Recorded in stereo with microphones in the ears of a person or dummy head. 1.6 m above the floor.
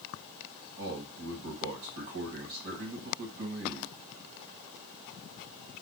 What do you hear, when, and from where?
0.8 s a man speaking: 55° right (ahead or behind), 1.2 m